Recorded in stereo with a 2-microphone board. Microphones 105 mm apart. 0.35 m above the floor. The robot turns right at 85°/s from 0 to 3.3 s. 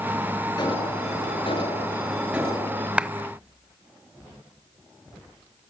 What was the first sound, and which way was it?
An alarm, 40° left.